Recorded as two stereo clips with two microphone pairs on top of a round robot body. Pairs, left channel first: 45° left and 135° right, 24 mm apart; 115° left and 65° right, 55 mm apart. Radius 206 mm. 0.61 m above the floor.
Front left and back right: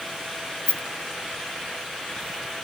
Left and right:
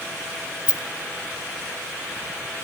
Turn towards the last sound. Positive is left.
turn(degrees=10)